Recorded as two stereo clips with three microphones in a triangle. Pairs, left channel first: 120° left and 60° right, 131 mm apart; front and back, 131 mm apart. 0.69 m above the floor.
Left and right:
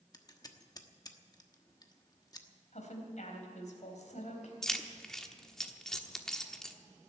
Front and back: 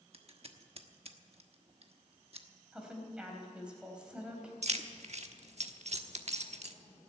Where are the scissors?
170° left, 1.1 m.